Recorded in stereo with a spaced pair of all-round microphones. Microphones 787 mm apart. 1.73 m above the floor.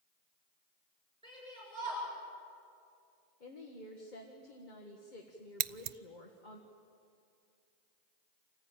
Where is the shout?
5° left (ahead or behind), 9 m.